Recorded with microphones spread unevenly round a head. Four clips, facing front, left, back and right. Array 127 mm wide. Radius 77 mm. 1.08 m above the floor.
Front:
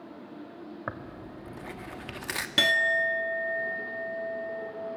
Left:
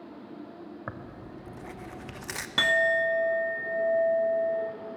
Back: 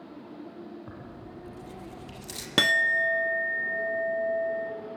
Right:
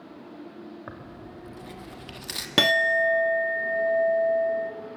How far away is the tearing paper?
About 1.3 m.